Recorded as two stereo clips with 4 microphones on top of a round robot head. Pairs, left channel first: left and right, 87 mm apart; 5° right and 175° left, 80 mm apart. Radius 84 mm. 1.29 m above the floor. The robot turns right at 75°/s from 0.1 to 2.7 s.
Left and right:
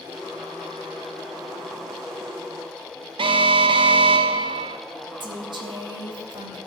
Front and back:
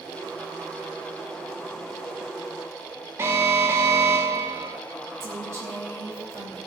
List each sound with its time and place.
3.2 s an alarm: 115° right, 1.0 m
5.2 s a woman speaking: 120° right, 3 m